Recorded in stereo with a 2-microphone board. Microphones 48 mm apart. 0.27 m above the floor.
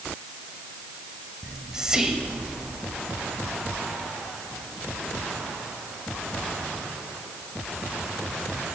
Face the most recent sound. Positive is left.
turn(degrees=-15)  # may be behind; listen again after turning